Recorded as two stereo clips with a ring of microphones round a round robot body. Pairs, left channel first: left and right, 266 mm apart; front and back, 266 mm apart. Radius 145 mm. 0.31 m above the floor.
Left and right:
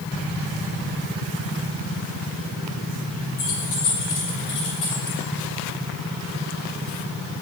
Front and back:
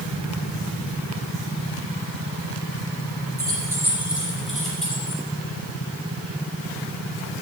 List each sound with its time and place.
3.4 s keys jangling: 105° left, 3.5 m; by 5.2 s 85° left, 5.5 m